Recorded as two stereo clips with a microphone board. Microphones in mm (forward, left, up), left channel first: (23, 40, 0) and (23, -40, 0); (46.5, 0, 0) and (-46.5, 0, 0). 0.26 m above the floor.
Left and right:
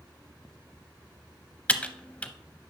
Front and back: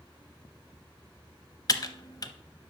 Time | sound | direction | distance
1.7 | typing on a keyboard | 20° left | 0.7 m